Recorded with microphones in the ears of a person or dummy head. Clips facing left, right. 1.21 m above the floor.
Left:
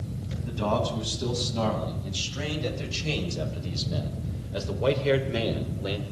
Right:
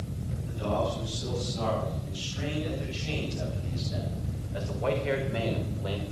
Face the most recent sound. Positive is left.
turn(degrees=30)  # may be behind; listen again after turning